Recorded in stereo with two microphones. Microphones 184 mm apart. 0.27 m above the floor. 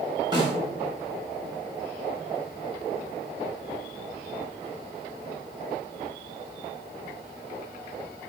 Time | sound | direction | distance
0.3 | a snare drum | 25° right (ahead or behind) | 0.8 m